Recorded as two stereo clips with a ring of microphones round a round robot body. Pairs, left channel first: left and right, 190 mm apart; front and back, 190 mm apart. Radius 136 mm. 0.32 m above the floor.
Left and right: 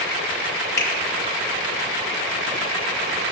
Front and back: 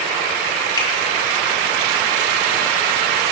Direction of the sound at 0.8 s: 70° left.